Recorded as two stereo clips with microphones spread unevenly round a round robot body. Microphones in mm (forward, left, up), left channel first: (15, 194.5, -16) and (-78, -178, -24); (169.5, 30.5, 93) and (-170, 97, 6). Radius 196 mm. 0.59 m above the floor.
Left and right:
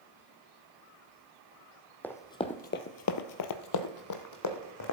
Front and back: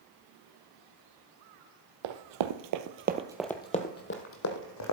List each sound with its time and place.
2.0 s running footsteps: 160° left, 1.2 m; by 4.9 s 25° left, 1.8 m